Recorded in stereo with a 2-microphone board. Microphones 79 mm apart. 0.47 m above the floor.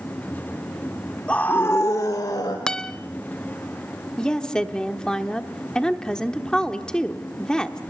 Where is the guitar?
10° left (ahead or behind), 0.6 m.